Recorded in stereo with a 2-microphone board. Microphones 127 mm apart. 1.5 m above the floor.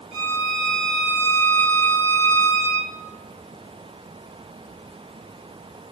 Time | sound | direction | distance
0.1 | a violin | 55° right (ahead or behind) | 5 m